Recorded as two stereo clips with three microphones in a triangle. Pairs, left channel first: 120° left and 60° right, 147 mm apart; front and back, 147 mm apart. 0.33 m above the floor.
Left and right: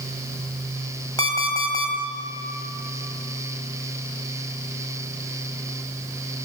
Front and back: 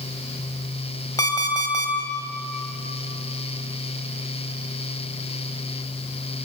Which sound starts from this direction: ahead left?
An alarm clock, at 1.2 s.